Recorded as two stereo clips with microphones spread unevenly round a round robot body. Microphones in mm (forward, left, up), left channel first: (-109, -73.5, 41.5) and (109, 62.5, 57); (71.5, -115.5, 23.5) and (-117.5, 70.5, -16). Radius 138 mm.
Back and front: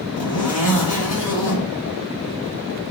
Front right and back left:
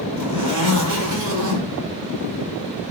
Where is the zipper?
Straight behind, 2.0 m.